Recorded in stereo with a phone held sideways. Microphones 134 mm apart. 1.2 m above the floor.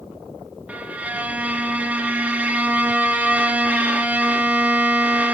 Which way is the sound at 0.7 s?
10° right (ahead or behind).